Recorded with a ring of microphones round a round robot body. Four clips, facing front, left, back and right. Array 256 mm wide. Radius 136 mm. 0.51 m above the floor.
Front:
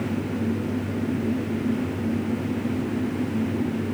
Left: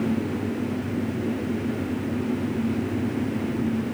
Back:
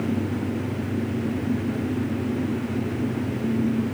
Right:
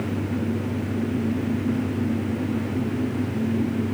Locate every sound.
Only background noise.